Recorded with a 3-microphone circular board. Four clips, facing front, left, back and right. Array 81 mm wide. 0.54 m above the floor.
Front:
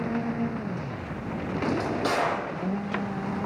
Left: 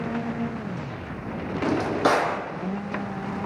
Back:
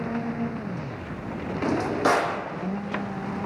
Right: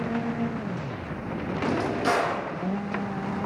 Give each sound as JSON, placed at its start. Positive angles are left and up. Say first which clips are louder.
{"t": 1.6, "sound": "a drawer", "louder": "left 4 dB, back 5 dB", "azimuth_deg": 115, "distance_m": 9.0}